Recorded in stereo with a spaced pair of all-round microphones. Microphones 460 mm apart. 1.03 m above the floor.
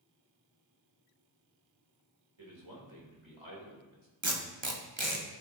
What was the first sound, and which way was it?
A man speaking, 85° right.